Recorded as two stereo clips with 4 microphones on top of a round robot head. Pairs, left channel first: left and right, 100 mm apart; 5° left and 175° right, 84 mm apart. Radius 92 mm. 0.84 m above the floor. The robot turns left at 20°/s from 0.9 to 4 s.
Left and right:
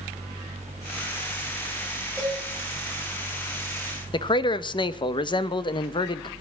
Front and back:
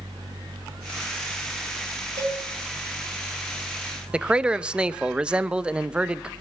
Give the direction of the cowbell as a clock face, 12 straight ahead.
6 o'clock.